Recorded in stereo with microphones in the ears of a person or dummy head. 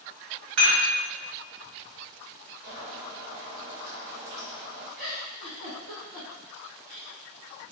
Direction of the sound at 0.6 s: 60° right (ahead or behind).